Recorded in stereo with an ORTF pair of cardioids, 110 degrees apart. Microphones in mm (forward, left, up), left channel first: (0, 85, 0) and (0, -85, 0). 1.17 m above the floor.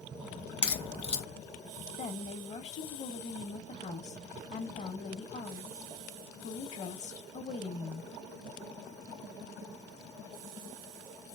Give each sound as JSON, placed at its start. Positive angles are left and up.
{"t": 0.6, "sound": "a crack", "azimuth_deg": 30, "distance_m": 1.4}
{"t": 2.0, "sound": "a woman speaking", "azimuth_deg": 40, "distance_m": 1.7}